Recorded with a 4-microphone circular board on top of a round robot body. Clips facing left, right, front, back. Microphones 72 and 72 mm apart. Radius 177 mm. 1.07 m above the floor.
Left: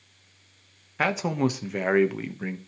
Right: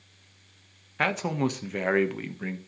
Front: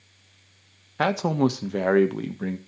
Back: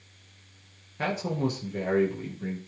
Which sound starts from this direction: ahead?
A man speaking, at 1.0 s.